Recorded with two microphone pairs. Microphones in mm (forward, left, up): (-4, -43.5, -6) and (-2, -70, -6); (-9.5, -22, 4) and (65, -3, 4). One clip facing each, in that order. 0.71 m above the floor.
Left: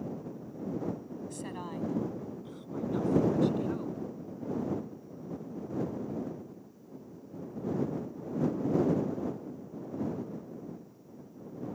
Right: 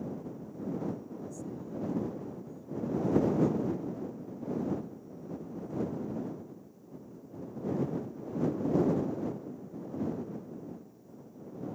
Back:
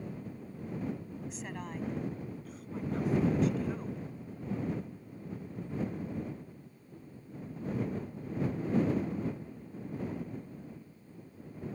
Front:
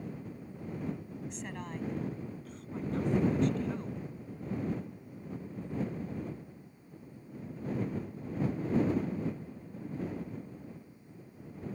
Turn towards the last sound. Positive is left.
turn(degrees=110)